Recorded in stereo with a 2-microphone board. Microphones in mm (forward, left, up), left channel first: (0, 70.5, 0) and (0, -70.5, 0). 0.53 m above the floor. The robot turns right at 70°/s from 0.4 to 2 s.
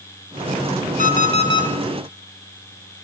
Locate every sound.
1.0 s an alarm clock: 105° left, 1.5 m; by 1.7 s 155° left, 1.5 m